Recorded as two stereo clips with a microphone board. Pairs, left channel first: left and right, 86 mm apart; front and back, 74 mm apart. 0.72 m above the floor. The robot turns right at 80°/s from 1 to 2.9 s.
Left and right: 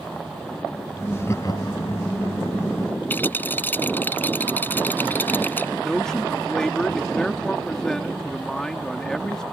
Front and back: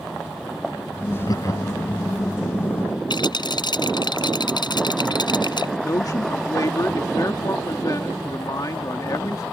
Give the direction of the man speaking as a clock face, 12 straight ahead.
12 o'clock.